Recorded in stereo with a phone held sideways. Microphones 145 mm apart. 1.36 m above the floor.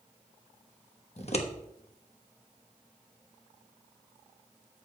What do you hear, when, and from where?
1.2 s scissors: 45° left (ahead or behind), 1.2 m